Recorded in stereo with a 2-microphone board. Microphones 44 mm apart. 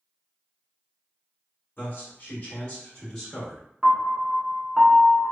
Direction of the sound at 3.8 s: 5° right (ahead or behind).